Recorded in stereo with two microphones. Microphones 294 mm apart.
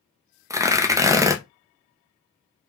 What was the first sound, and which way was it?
Tearing paper, 10° right (ahead or behind).